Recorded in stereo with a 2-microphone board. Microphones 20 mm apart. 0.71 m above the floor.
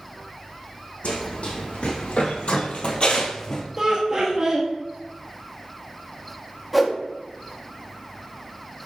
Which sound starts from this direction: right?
Laughter, at 3.8 s.